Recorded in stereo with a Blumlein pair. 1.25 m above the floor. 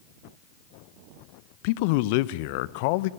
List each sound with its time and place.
1.6 s a man speaking: 45° left, 0.7 m